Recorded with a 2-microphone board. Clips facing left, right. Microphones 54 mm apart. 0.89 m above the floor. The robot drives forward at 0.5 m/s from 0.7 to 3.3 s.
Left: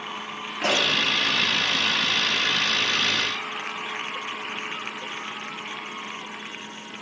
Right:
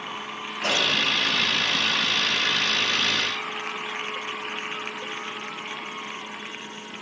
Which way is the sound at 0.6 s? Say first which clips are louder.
Left 1 dB; 70° left (ahead or behind).